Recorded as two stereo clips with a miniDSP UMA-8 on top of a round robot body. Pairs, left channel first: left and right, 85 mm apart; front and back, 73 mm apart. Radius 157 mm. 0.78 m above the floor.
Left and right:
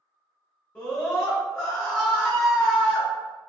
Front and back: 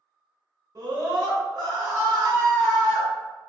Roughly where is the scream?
Behind left.